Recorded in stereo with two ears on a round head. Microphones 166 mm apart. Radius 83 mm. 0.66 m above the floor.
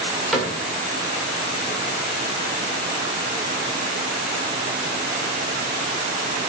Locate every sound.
0.3 s a cupboard door: centre (ahead or behind), 2 m